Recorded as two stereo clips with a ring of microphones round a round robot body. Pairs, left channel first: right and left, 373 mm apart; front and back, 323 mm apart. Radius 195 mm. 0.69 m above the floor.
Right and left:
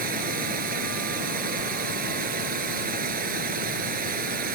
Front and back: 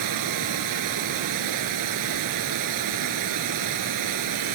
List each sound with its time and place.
0.0 s running water: 160° left